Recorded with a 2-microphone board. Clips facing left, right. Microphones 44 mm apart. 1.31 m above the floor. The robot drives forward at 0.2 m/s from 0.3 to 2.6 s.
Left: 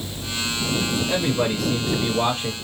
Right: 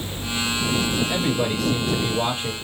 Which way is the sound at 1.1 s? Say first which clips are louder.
Left 1 dB; 60° left (ahead or behind).